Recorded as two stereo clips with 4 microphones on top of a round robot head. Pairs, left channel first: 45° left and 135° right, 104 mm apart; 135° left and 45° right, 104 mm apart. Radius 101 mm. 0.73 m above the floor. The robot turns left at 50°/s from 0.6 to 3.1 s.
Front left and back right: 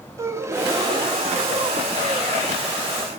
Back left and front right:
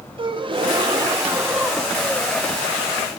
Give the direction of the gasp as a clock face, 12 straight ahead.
3 o'clock.